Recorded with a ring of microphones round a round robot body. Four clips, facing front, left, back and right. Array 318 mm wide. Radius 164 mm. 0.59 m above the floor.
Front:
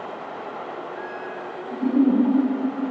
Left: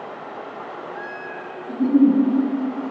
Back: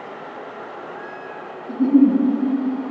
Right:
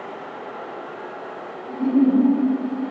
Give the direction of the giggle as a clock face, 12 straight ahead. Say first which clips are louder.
Left 2 dB, back 5 dB; 7 o'clock.